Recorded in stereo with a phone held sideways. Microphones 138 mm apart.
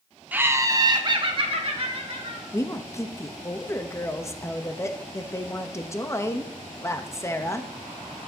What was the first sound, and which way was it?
Laughter, 15° right (ahead or behind).